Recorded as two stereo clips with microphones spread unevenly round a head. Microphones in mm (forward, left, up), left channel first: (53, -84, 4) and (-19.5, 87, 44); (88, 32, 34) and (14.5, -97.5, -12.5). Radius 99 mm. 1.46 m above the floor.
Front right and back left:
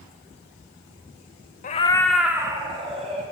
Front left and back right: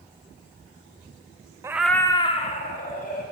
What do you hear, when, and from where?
1.6 s a cat meowing: 35° right, 0.6 m; by 3.2 s 60° left, 1.7 m